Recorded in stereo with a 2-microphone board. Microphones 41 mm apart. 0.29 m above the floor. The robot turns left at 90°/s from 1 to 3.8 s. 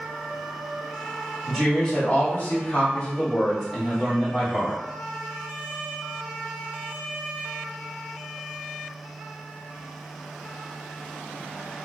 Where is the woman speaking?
175° right, 1.7 m; by 4.8 s 25° right, 1.7 m.